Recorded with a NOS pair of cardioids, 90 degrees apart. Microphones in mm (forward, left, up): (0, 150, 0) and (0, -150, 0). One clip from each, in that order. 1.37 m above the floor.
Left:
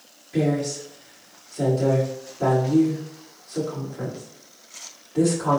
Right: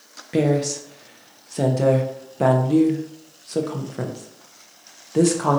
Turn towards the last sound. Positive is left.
turn(degrees=-65)